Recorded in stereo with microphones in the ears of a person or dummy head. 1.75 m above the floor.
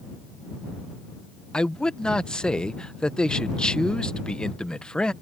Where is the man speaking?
Centre (ahead or behind).